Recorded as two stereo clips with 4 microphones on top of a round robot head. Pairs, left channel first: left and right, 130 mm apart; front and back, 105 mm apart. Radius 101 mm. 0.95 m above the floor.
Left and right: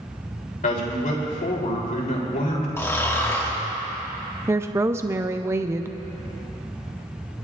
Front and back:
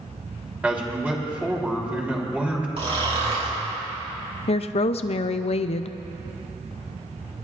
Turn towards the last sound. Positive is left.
turn(degrees=-20)